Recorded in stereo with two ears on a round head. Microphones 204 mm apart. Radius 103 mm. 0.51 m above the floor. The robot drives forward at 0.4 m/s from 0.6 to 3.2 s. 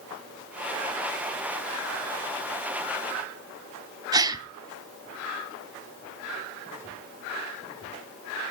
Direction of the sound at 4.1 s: 15° right (ahead or behind).